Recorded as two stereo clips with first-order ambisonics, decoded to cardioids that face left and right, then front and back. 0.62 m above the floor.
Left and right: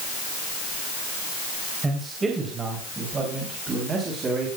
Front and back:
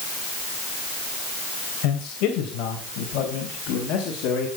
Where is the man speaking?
15° right, 3 m; by 4.5 s 25° right, 4.5 m.